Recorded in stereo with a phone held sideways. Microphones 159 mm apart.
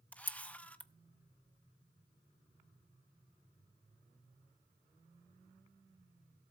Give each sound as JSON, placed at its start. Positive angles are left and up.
{"t": 0.1, "sound": "a camera shutter", "side_deg": 10, "distance_m": 0.6}